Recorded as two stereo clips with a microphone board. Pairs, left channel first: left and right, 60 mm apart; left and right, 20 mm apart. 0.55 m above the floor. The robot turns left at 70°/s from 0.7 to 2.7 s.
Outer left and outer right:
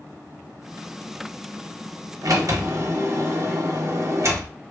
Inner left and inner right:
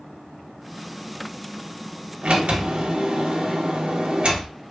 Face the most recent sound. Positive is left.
turn(degrees=-125)